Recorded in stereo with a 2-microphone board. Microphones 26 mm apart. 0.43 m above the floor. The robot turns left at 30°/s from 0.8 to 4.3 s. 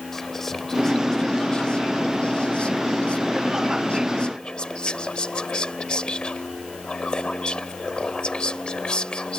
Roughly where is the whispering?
Behind.